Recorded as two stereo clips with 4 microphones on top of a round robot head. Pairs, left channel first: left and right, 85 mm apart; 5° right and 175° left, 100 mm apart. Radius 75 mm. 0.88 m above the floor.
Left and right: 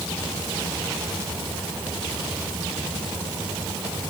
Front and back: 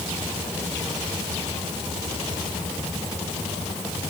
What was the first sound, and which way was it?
Only background noise.